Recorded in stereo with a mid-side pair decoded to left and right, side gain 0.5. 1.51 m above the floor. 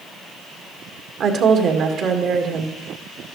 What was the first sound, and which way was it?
A woman speaking, 60° right.